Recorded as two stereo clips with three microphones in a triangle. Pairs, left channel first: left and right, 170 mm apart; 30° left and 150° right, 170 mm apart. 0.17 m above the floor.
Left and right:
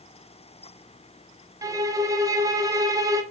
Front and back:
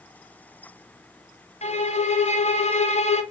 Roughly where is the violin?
Ahead.